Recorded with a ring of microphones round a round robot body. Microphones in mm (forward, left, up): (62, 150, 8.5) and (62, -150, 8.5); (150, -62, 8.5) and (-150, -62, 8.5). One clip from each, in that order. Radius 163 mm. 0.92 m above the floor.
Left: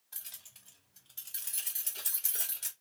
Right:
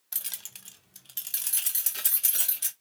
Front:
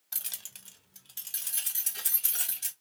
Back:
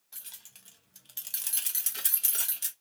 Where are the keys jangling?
50° right, 0.6 m; by 2.7 s 135° right, 1.5 m.